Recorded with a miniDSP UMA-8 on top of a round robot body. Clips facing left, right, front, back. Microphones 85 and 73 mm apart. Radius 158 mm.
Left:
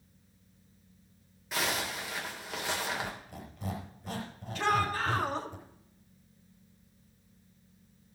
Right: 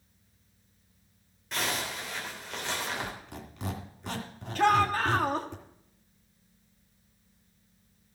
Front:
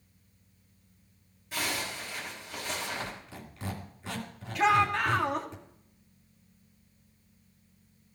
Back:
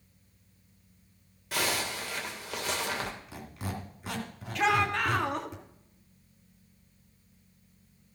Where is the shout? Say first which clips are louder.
Right 5 dB, front 2 dB; 85° right, 1.7 m.